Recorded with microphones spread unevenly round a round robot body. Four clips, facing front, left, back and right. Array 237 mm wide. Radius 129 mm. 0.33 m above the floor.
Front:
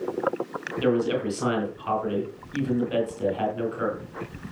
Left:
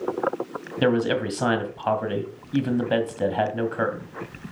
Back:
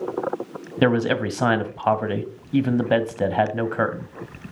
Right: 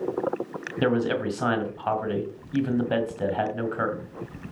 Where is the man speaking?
165° left, 2 m.